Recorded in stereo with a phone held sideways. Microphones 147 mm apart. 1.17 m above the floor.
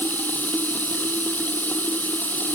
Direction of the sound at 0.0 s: 10° left (ahead or behind).